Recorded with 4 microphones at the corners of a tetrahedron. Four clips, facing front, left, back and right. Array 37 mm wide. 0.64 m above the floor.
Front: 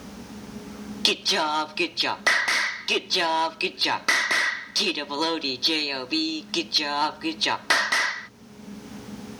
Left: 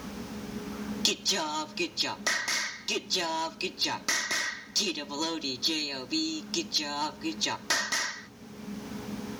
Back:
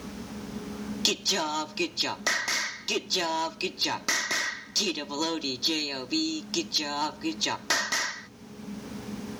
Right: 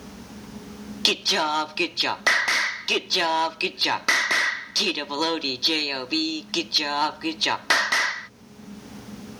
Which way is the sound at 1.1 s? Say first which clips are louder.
Right 8 dB, front 5 dB; 50° right.